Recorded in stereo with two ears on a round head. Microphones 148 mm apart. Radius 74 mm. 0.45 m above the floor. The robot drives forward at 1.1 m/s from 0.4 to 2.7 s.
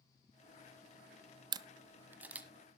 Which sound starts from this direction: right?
A camera shutter, at 1.5 s.